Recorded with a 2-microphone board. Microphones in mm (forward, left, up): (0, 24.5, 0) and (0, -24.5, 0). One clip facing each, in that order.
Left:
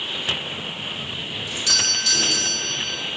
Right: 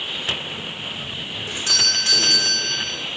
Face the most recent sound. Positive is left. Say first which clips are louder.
# right 1 dB
turn(degrees=-35)  # may be behind; listen again after turning